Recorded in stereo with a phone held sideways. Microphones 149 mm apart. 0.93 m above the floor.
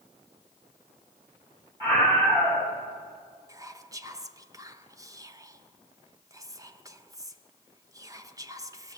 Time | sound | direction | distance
1.8 | a scream | 25° right (ahead or behind) | 6.5 m
3.5 | whispering | 20° right (ahead or behind) | 0.6 m